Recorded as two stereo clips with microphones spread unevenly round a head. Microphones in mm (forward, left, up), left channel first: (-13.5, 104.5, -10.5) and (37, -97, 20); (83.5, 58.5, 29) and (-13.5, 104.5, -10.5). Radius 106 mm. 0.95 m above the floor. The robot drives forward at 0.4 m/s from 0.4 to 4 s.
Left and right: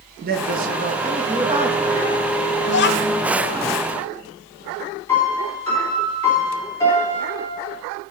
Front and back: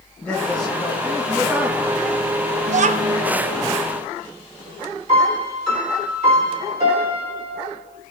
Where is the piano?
Straight behind, 3 m.